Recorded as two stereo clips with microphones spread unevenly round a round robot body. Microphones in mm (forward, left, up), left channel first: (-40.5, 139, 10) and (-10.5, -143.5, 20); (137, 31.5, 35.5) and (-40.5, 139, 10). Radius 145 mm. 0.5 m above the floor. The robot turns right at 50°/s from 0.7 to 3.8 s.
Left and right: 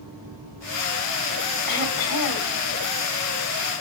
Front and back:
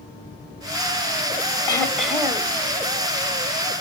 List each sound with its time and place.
1.7 s throat clearing: 40° left, 2.5 m; by 2.6 s 85° left, 2.5 m